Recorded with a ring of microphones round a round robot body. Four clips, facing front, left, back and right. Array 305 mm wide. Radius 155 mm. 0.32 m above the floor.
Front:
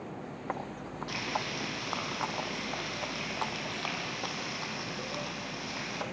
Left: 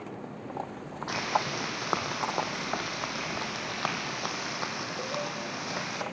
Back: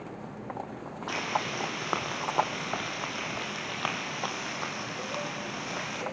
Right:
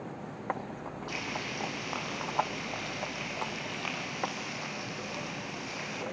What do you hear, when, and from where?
1.1 s frying: 125° left, 2.5 m